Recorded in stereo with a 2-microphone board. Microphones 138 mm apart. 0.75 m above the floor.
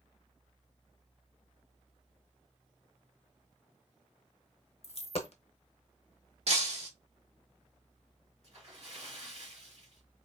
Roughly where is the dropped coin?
Left.